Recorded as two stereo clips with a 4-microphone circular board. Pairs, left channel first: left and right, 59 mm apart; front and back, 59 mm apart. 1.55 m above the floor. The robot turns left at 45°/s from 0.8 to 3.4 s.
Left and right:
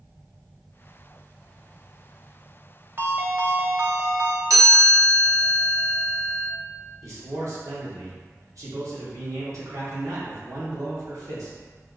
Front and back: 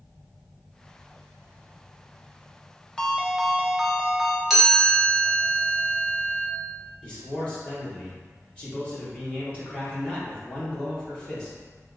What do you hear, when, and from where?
3.0 s a ringtone: 70° right, 0.5 m; by 4.4 s 90° right, 0.5 m
4.5 s a chime: 90° right, 1.0 m
7.0 s a man speaking: 70° right, 1.4 m